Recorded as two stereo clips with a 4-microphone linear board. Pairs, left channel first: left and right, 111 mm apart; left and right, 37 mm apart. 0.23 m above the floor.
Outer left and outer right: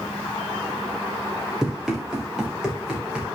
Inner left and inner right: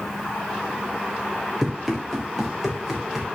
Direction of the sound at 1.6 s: 5° right (ahead or behind).